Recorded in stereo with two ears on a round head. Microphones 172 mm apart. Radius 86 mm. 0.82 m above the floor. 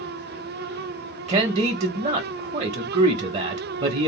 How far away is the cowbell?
No cowbell in this recording.